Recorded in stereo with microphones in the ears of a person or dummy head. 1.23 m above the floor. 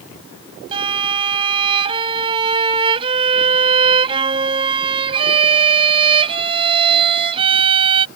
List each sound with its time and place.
0.7 s a violin: 30° right (ahead or behind)